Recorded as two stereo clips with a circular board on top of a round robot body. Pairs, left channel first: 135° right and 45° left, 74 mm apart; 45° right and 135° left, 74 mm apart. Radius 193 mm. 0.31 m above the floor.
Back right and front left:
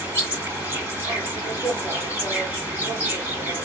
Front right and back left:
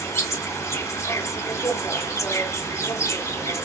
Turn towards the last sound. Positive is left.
turn(degrees=-15)